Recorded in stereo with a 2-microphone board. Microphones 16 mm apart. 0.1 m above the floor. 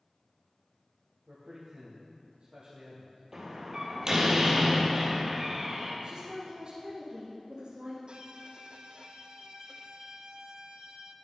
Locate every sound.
1.3 s a man speaking: 60° right (ahead or behind), 3 m
3.3 s a door slam: 40° right (ahead or behind), 2.5 m
6.0 s a woman speaking: 55° right (ahead or behind), 3 m
8.1 s a violin: 70° right (ahead or behind), 0.8 m